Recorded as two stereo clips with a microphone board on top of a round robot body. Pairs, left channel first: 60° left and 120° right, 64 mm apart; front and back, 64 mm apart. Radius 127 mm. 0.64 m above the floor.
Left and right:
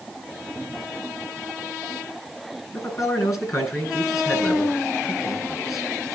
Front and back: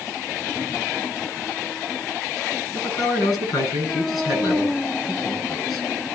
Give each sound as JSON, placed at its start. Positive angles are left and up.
{"t": 2.7, "sound": "a man speaking", "azimuth_deg": 20, "distance_m": 8.0}